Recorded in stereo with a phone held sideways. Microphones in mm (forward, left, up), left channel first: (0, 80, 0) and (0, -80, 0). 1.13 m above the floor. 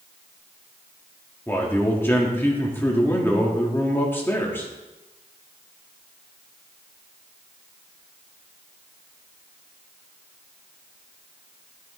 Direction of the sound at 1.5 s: 15° left (ahead or behind).